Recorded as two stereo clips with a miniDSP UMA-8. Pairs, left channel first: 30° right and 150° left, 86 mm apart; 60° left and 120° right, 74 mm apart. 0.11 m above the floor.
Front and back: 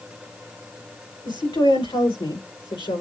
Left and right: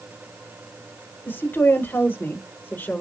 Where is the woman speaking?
5° right, 6.5 m; by 3.0 s 15° right, 7.5 m.